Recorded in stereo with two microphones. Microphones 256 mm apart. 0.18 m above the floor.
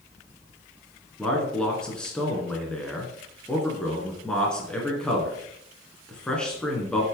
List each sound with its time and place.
1.2 s a man speaking: 5° left (ahead or behind), 2.5 m